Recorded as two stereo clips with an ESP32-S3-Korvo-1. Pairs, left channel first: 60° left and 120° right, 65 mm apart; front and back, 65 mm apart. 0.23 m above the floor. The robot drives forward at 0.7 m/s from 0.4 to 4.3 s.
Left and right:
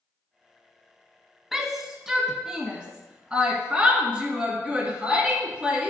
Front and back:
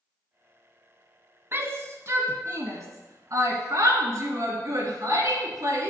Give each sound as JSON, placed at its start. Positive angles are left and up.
{"t": 1.5, "sound": "a shout", "azimuth_deg": 155, "distance_m": 1.7}